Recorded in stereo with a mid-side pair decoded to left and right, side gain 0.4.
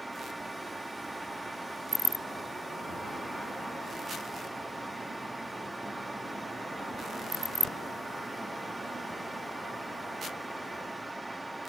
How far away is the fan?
About 0.8 m.